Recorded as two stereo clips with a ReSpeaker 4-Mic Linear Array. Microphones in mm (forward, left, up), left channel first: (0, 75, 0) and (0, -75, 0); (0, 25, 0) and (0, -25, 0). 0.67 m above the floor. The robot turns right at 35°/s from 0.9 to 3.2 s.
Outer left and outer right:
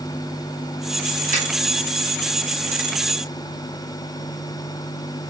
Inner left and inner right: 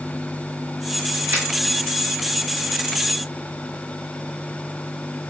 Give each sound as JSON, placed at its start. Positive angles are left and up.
{"t": 1.3, "sound": "a finger snap", "side_deg": -60, "distance_m": 2.0}